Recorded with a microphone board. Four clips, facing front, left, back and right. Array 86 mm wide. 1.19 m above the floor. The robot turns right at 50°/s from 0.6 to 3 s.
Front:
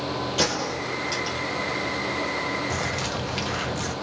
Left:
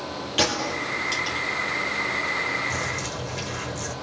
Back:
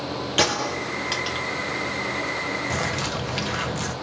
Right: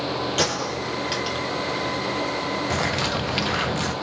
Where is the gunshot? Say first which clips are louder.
Right 1 dB, back 5 dB; 170° left, 1.9 m; by 1.5 s 145° right, 1.9 m.